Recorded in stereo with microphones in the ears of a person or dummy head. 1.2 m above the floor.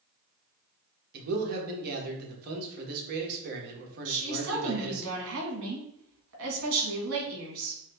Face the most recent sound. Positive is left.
turn(degrees=-75)  # may be behind; listen again after turning